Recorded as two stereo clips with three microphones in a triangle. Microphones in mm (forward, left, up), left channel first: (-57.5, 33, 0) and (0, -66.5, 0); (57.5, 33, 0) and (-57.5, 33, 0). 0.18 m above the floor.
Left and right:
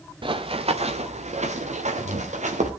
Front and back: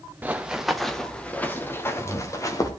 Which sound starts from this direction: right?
Running footsteps, at 0.2 s.